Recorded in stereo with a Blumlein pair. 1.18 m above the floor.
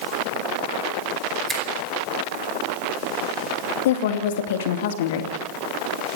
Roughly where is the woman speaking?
Ahead left.